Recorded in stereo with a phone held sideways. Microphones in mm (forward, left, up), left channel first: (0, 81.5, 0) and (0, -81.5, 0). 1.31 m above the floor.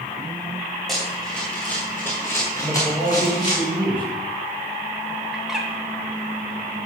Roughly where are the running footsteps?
Centre.